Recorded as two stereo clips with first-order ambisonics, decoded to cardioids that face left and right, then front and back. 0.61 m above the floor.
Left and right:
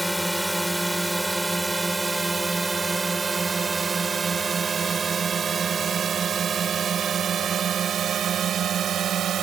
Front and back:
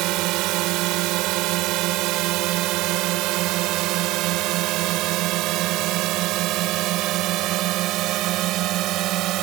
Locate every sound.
0.0 s a drone: straight behind; by 9.4 s 145° right